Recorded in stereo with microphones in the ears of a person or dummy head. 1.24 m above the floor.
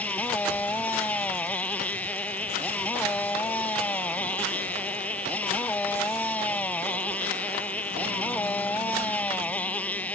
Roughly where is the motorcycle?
Centre.